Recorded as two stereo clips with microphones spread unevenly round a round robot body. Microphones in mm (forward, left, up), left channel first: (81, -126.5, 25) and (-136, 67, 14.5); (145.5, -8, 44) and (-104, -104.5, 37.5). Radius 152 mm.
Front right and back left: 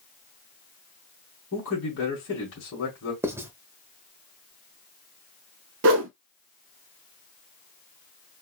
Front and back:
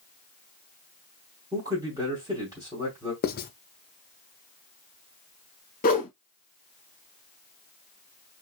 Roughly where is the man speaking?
Right.